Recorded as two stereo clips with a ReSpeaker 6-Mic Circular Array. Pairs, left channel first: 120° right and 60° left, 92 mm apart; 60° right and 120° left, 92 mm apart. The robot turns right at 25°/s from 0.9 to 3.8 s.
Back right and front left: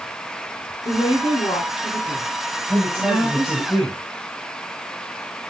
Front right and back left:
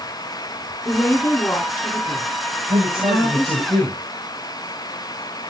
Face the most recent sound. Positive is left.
turn(degrees=165)